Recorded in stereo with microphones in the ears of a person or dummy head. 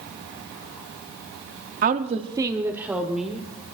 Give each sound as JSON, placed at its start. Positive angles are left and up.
{"t": 1.8, "sound": "a woman speaking", "side_deg": -40, "distance_m": 0.7}